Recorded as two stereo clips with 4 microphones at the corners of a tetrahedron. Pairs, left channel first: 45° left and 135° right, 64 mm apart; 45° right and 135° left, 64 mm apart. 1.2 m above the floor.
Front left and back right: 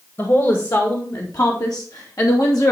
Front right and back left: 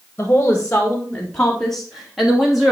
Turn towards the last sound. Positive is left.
turn(degrees=55)